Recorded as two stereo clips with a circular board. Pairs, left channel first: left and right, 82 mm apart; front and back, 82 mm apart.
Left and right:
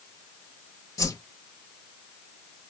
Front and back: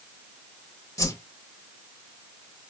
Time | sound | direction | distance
1.0 | a whoosh | 45° left | 0.5 m